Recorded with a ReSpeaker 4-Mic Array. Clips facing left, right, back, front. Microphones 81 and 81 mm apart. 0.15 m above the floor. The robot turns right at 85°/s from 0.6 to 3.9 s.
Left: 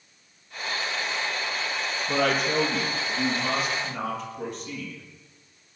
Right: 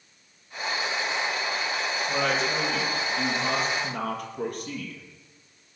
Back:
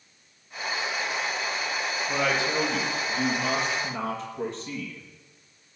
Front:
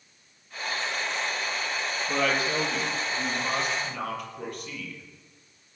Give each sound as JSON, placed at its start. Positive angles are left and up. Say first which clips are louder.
{"t": 2.1, "sound": "a woman speaking", "louder": "left 3 dB, even", "azimuth_deg": 85, "distance_m": 4.5}